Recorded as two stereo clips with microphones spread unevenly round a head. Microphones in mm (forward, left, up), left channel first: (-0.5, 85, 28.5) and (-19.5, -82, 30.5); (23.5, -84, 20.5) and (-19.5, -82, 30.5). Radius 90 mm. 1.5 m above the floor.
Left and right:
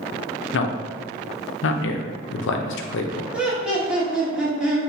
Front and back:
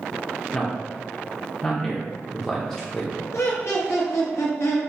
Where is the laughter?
10° right, 1.2 m.